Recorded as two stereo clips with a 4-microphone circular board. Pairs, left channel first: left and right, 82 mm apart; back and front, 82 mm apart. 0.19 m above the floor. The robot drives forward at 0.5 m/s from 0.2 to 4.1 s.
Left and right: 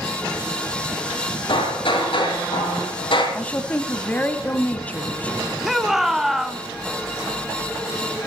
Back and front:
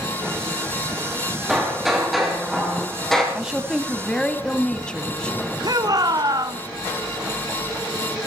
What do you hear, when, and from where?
1.5 s hammering: 85° left, 6 m; by 3.2 s 95° left, 6 m
3.4 s a woman speaking: 60° left, 1.1 m; by 5.5 s 120° left, 1.1 m
5.6 s a shout: 5° right, 1.5 m